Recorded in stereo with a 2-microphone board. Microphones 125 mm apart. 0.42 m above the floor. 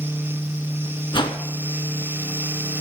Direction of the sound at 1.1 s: 40° left (ahead or behind).